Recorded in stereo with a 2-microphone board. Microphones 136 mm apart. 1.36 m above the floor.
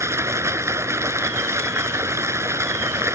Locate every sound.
0.0 s running water: 20° right (ahead or behind)